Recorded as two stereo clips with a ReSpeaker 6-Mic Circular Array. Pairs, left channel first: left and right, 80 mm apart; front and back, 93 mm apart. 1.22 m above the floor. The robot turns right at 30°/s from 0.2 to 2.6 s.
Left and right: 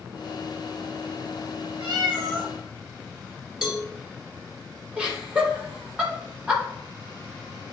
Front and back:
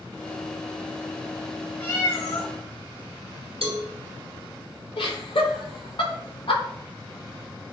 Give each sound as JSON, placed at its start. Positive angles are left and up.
{"t": 1.8, "sound": "a cat meowing", "azimuth_deg": -70, "distance_m": 3.0}
{"t": 3.6, "sound": "a cowbell", "azimuth_deg": -175, "distance_m": 2.5}
{"t": 5.0, "sound": "laughter", "azimuth_deg": -15, "distance_m": 3.0}